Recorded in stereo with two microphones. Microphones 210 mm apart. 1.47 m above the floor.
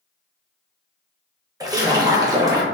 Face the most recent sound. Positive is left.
turn(degrees=-15)  # may be behind; listen again after turning